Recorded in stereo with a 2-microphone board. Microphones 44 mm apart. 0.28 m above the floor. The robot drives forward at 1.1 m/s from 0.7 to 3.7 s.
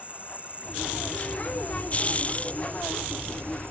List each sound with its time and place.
0.0 s an insect: 30° right (ahead or behind); by 3.7 s 55° right (ahead or behind)